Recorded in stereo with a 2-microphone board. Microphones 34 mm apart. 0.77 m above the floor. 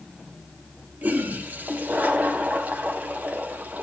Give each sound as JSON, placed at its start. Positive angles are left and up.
{"t": 1.0, "sound": "a toilet flushing", "side_deg": -55, "distance_m": 1.9}